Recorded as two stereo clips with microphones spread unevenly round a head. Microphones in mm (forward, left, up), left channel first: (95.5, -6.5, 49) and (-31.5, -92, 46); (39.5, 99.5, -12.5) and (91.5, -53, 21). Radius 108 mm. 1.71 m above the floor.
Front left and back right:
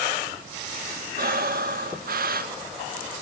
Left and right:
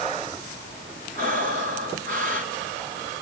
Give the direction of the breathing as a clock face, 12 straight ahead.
4 o'clock.